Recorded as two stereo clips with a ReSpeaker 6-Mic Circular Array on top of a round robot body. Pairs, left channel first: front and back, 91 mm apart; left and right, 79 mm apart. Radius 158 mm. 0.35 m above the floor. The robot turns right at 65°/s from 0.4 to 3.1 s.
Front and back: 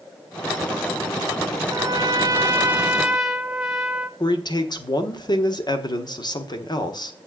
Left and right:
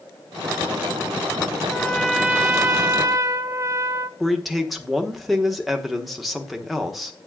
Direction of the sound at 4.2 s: Straight ahead.